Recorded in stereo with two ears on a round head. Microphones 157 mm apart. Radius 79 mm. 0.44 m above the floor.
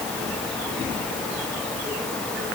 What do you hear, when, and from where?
Only background noise.